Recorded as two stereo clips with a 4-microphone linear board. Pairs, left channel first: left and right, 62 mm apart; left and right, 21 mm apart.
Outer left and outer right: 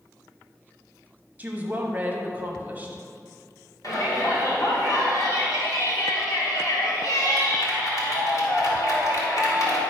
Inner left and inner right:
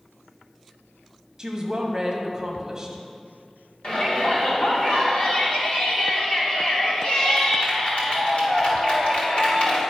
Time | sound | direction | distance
1.4 | a woman speaking | 25° right (ahead or behind) | 1.2 m
3.8 | a shout | 60° left (ahead or behind) | 2 m